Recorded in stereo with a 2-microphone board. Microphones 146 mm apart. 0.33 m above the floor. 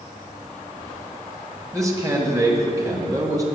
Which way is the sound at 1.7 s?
20° right (ahead or behind).